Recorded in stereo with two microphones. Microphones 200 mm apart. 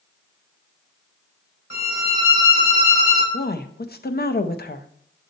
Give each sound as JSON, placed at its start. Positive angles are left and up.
{"t": 1.7, "sound": "a violin", "side_deg": 80, "distance_m": 2.5}
{"t": 3.3, "sound": "a woman speaking", "side_deg": 50, "distance_m": 0.6}